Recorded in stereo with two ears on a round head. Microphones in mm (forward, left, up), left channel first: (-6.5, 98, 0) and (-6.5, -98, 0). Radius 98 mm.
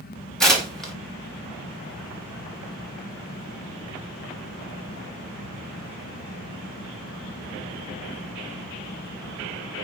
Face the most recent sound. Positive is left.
turn(degrees=0)  # may be behind; listen again after turning